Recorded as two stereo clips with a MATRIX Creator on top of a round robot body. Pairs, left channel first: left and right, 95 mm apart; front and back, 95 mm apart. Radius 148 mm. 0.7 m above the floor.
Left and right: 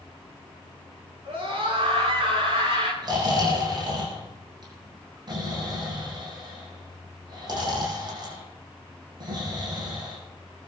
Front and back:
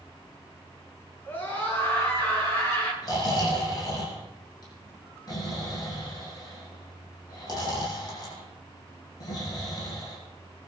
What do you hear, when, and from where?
1.2 s a scream: 70° right, 8 m; by 2.9 s 60° right, 10 m
3.0 s snoring: 45° right, 7.5 m